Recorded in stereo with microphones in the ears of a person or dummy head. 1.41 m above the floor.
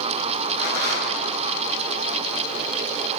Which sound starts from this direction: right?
A rattle, at 0.6 s.